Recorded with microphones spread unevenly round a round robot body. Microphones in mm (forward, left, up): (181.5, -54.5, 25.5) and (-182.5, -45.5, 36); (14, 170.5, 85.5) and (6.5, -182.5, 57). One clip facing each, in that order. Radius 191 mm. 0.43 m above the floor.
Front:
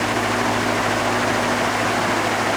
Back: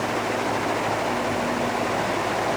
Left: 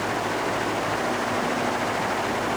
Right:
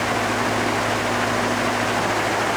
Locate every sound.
Only background noise.